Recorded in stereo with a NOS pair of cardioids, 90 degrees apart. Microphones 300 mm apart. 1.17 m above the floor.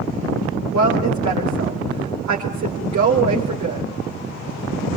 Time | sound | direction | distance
0.7 | a woman speaking | 65° right | 4.5 m